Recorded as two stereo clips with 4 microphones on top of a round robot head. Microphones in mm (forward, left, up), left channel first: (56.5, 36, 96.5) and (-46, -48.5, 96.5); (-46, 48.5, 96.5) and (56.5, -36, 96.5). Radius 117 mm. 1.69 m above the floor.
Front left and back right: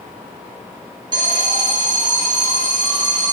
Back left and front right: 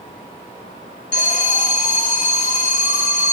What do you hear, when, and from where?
1.1 s an alarm: 165° left, 4 m